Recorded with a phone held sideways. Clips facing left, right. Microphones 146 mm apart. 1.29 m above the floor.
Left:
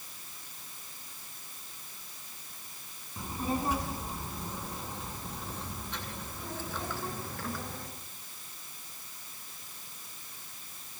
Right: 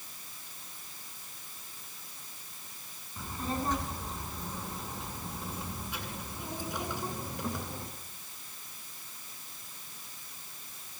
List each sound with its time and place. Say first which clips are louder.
3.2 s a child speaking: left 2 dB; 15° left (ahead or behind), 7.5 m; by 7.9 s 20° right (ahead or behind), 10.5 m